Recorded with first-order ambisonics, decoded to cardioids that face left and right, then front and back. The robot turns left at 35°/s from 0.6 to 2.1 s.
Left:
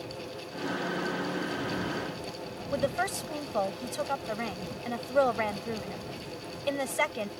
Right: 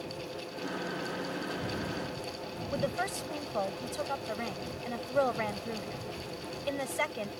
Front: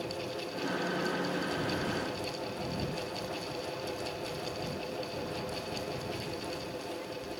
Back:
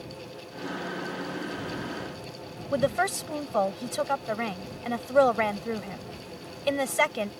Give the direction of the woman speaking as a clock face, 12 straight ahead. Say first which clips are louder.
Left 4 dB, back 11 dB; 6 o'clock.